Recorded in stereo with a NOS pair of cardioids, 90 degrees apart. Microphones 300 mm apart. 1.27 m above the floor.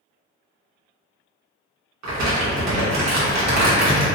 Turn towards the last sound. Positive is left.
turn(degrees=-65)